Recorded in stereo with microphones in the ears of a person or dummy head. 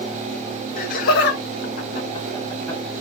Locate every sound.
0.8 s laughter: 40° left (ahead or behind), 1.1 m; by 2.8 s 5° left (ahead or behind), 1.2 m